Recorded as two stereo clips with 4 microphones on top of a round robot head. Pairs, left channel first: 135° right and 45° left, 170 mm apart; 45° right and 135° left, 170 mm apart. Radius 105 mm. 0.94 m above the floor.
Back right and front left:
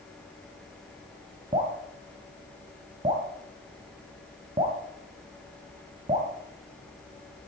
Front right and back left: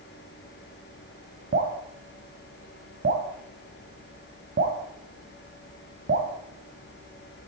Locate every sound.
1.5 s dripping: 105° left, 1.3 m